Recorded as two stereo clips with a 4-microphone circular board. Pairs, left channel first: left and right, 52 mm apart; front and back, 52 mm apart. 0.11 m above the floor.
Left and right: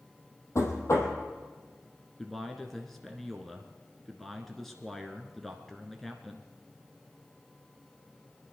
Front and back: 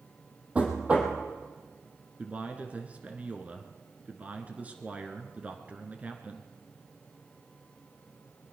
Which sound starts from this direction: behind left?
Knocking, at 0.6 s.